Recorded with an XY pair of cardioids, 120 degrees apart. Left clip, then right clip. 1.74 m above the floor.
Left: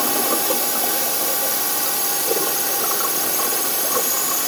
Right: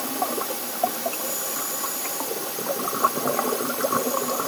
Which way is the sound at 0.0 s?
55° left.